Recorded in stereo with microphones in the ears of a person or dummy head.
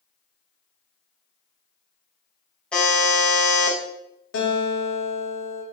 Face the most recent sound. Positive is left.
turn(degrees=80)